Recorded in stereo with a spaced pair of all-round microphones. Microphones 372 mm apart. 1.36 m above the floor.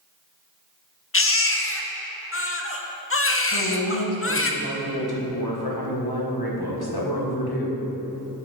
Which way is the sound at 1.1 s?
35° left (ahead or behind).